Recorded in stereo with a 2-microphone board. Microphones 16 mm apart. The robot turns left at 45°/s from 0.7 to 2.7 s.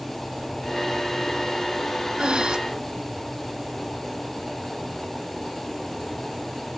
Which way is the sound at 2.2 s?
60° right (ahead or behind).